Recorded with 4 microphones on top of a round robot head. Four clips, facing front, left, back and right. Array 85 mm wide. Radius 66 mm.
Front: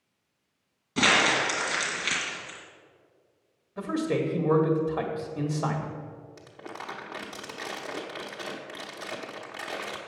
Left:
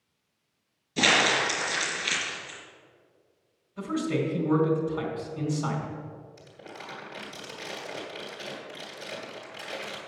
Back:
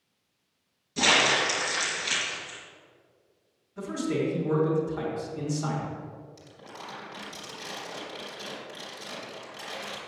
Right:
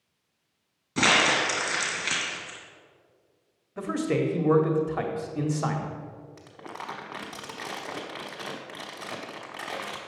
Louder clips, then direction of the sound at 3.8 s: Right 2 dB, front 1 dB; 55° right.